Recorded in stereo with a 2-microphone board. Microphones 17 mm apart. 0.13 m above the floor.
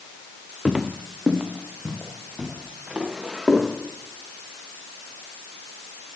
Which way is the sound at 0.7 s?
10° right (ahead or behind).